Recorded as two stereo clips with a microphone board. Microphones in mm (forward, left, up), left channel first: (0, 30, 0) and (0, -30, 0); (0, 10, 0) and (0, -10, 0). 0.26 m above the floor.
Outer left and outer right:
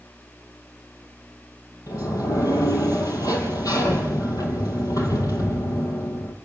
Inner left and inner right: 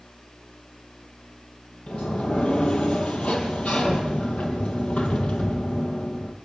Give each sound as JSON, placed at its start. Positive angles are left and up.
{"t": 1.9, "sound": "a sliding door", "side_deg": 75, "distance_m": 3.5}